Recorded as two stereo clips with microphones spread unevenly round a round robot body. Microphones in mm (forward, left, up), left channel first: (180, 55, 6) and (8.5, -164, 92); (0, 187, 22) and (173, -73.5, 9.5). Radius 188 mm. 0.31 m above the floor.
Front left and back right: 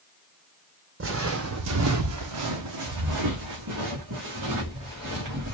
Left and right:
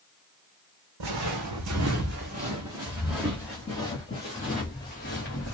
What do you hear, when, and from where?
1.0 s footsteps: 90° right, 1.2 m; by 5.5 s 170° right, 2.5 m